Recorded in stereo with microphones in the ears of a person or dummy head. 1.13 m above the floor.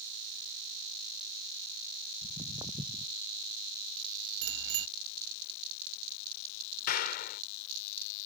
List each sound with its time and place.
2.2 s footsteps: 20° right (ahead or behind)
4.4 s a bicycle bell: 80° right
6.9 s a clap: 50° left (ahead or behind)